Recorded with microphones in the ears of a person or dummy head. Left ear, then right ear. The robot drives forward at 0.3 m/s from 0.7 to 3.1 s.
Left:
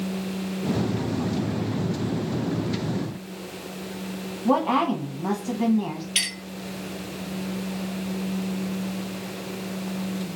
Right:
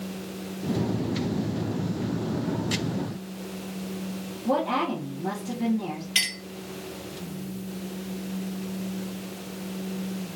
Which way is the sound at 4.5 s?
65° left (ahead or behind).